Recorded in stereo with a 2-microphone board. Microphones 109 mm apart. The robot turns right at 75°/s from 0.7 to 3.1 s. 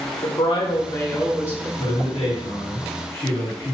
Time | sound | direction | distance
0.2 | a woman speaking | 140° left | 1.1 m
1.8 | a man speaking | 45° left | 2 m